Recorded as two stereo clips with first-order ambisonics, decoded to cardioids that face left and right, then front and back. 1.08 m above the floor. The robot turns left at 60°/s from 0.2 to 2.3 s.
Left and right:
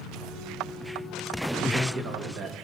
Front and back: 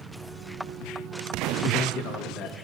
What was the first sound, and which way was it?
A man speaking, 10° right.